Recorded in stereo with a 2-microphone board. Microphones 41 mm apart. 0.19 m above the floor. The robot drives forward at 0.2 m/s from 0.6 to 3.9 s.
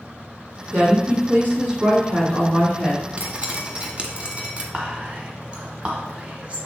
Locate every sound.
0.7 s a woman speaking: 45° right (ahead or behind), 2 m
3.2 s dripping: 35° right (ahead or behind), 1.1 m; by 4.6 s 30° right (ahead or behind), 1.2 m
4.7 s whispering: 30° right (ahead or behind), 1.3 m